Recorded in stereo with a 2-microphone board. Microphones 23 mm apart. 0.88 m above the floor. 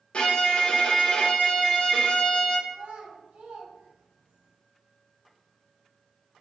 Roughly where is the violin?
Left.